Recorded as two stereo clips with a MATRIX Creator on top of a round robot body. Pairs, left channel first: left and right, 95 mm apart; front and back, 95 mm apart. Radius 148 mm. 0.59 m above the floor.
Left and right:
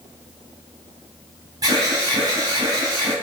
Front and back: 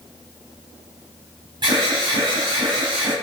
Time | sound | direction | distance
1.6 | an alarm | 140° right | 6 m